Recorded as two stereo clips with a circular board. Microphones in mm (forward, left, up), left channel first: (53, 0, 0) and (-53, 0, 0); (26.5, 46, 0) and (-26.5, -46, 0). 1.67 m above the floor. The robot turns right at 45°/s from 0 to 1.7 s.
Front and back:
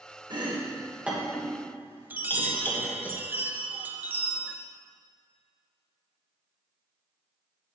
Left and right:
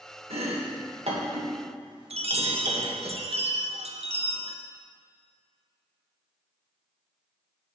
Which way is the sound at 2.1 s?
105° right.